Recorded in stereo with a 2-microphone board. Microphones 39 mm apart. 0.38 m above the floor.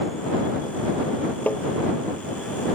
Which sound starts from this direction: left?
Tapping, at 1.5 s.